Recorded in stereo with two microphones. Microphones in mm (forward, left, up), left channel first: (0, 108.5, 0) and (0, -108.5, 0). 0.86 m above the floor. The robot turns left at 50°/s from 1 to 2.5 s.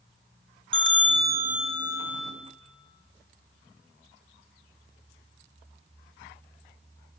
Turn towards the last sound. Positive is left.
turn(degrees=165)